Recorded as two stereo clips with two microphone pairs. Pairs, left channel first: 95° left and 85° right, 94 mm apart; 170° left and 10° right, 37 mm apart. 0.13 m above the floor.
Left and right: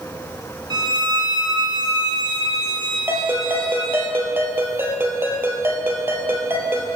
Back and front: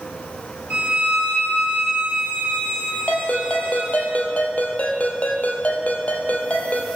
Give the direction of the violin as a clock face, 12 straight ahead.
2 o'clock.